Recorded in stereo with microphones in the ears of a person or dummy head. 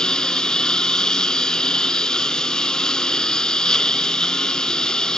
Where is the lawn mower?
5° left (ahead or behind).